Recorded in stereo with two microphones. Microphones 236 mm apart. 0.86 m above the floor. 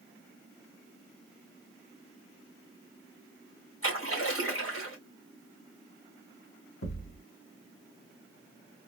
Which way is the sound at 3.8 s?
60° left (ahead or behind).